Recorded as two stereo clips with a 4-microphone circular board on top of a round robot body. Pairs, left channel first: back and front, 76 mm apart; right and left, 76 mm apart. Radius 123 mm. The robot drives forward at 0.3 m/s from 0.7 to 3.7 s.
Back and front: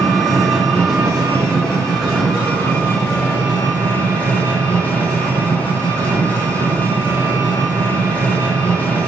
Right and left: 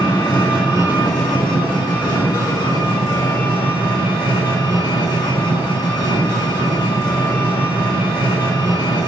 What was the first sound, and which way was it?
An engine running, 85° right.